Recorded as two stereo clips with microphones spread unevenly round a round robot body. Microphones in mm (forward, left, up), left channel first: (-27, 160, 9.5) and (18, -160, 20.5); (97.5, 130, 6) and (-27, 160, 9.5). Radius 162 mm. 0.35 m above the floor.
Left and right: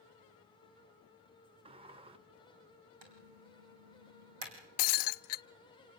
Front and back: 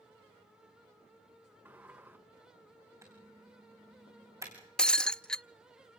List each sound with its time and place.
1.6 s a sliding door: 135° right, 0.6 m
3.0 s typing on a keyboard: 110° right, 4.5 m
4.8 s breaking glass: 70° left, 0.5 m